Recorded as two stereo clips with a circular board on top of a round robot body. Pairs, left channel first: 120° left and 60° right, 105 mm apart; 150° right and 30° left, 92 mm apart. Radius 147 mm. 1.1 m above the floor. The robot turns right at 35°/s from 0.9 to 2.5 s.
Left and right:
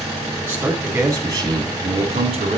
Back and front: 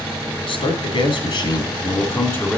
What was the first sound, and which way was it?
A man speaking, 135° right.